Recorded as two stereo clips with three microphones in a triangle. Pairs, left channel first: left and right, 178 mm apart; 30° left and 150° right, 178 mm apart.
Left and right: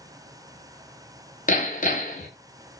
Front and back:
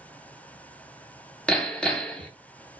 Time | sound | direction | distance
1.5 | hammering | 115° left | 0.9 m